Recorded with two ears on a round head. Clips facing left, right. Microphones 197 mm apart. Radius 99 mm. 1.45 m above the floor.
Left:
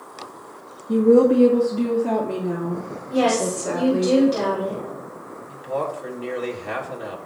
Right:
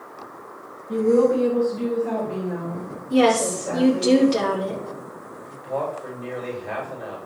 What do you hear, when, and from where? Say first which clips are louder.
0.9 s a woman speaking: left 3 dB; 55° left (ahead or behind), 2.0 m; by 4.1 s 75° left (ahead or behind), 3.5 m
3.1 s a woman speaking: right 2 dB; 40° right (ahead or behind), 5 m
5.5 s a man speaking: left 1 dB; 60° left (ahead or behind), 3 m